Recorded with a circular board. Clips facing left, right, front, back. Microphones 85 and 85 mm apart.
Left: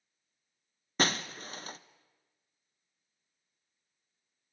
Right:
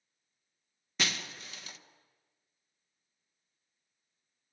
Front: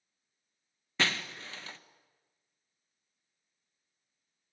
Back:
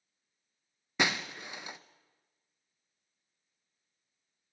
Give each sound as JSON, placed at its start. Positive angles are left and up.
{"t": 1.0, "sound": "breaking glass", "azimuth_deg": 110, "distance_m": 0.9}